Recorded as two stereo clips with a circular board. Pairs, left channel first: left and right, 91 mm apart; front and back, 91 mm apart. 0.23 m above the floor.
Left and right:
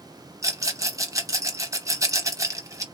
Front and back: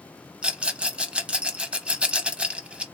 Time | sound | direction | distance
0.4 | a rattle | 110° right | 0.8 m